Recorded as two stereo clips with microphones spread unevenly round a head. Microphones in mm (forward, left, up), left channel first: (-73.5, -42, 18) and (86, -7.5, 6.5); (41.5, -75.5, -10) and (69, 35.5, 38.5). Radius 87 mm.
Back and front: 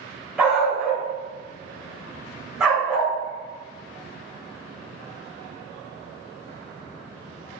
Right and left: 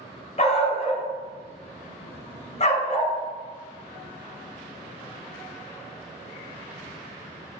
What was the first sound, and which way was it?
A dog barking, 75° right.